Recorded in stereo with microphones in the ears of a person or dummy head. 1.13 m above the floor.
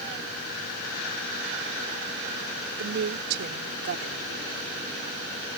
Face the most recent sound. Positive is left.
turn(degrees=-50)  # may be behind; listen again after turning